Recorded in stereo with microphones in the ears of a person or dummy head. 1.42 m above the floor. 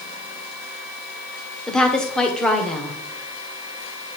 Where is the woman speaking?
10° left (ahead or behind), 1.1 m.